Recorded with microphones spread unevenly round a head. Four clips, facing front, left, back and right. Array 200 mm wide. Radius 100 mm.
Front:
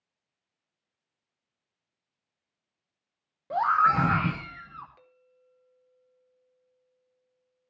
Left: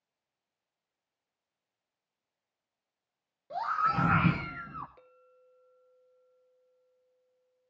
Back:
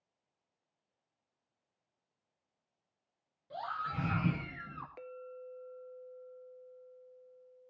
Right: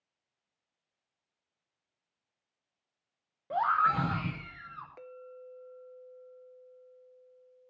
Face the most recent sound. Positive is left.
turn(degrees=-145)